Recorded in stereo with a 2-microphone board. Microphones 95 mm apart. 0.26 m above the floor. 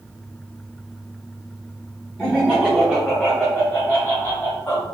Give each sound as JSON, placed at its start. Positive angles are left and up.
{"t": 2.2, "sound": "laughter", "side_deg": -20, "distance_m": 1.6}